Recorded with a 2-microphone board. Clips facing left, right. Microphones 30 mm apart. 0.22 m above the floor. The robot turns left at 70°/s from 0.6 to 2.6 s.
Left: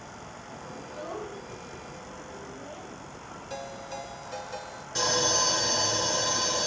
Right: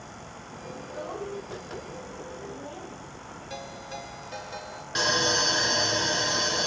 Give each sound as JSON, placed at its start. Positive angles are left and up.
{"t": 0.8, "sound": "a child speaking", "side_deg": 15, "distance_m": 4.0}
{"t": 3.5, "sound": "a ringtone", "side_deg": -15, "distance_m": 2.0}
{"t": 5.0, "sound": "sawing", "side_deg": -40, "distance_m": 2.0}